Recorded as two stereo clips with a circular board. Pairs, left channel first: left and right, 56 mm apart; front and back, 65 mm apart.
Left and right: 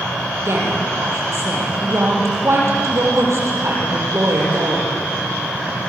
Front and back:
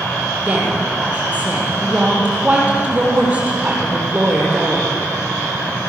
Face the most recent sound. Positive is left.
turn(degrees=-115)